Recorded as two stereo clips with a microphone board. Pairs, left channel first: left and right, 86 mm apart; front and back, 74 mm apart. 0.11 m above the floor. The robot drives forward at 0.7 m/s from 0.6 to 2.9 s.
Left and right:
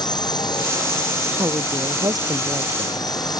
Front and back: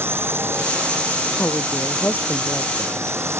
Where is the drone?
125° left; by 3.4 s 130° left.